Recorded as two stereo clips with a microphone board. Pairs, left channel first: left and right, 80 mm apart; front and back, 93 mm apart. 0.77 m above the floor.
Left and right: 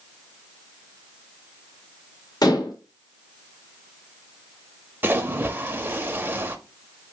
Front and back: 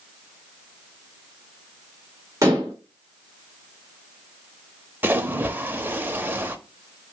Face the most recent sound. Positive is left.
turn(degrees=-130)